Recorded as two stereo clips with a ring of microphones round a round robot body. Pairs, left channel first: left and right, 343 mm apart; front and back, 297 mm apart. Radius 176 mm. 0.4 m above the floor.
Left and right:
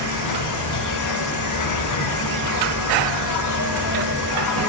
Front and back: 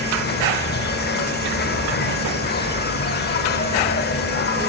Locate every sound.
0.0 s an insect: 55° left, 0.8 m